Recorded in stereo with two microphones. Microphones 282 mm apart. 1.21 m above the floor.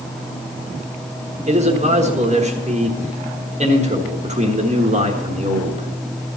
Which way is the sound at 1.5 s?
25° right (ahead or behind).